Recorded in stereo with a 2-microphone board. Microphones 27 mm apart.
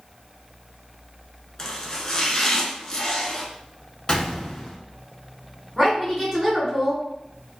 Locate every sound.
1.6 s chopping: 20° left (ahead or behind), 0.7 m
4.1 s a gunshot: 25° left (ahead or behind), 0.6 m
5.8 s a woman speaking: 10° right (ahead or behind), 1.2 m